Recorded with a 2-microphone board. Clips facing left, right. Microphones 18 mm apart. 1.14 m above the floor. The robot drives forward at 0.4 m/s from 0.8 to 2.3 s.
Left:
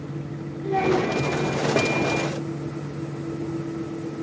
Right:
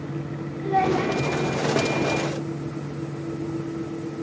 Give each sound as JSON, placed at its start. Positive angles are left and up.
{"t": 0.6, "sound": "a child speaking", "side_deg": -25, "distance_m": 3.0}